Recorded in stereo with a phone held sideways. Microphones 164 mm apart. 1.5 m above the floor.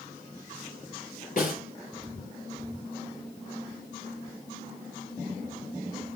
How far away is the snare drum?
About 2.5 m.